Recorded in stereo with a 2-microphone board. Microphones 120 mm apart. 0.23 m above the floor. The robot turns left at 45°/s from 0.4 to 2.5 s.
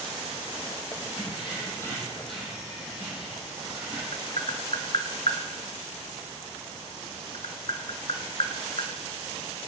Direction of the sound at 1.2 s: 55° left.